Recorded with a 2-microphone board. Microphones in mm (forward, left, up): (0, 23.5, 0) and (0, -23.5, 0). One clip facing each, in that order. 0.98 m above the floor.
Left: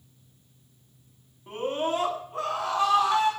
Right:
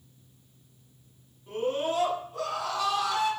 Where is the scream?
35° left (ahead or behind), 6.5 m.